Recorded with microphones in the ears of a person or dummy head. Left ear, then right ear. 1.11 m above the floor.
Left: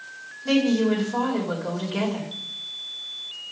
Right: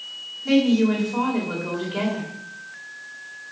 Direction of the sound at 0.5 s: 10° left (ahead or behind).